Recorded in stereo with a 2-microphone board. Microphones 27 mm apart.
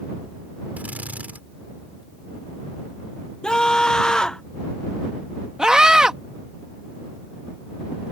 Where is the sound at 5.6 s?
30° right (ahead or behind).